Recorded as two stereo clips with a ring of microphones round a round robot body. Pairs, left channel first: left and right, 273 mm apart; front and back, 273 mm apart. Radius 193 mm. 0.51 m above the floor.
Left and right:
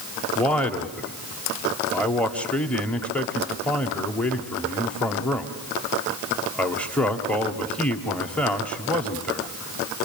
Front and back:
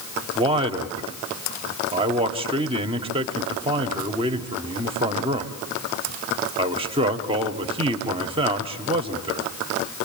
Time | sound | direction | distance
0.3 | a man speaking | 165° left | 1.4 m